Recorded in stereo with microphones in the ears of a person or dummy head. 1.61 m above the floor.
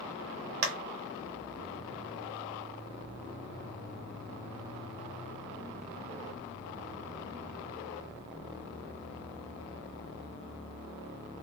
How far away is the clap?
About 0.6 m.